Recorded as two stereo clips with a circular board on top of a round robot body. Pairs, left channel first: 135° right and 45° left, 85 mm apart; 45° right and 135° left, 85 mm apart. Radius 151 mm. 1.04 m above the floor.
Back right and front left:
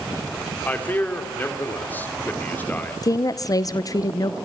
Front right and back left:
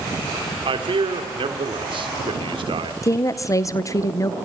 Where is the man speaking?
155° left, 3 m.